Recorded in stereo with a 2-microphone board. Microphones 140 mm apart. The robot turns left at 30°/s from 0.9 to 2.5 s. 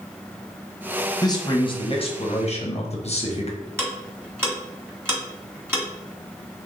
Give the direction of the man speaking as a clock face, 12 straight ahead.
7 o'clock.